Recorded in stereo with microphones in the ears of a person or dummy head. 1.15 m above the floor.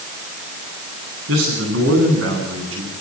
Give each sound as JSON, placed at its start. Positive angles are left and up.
{"t": 1.3, "sound": "a man speaking", "side_deg": -75, "distance_m": 10.0}